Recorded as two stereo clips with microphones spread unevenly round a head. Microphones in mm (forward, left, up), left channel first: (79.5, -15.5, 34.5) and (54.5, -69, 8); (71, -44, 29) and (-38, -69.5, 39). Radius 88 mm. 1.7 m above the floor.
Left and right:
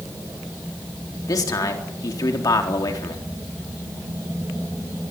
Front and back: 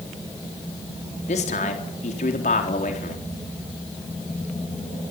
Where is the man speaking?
55° left, 4 m.